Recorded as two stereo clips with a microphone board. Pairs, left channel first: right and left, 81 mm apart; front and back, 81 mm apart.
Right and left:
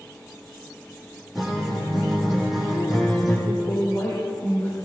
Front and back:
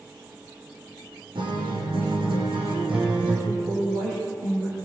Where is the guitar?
Straight behind, 7.5 m.